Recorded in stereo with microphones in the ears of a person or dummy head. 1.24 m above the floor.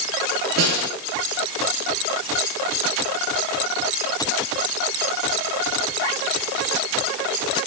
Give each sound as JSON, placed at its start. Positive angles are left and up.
{"t": 0.6, "sound": "a snare drum", "side_deg": -80, "distance_m": 6.5}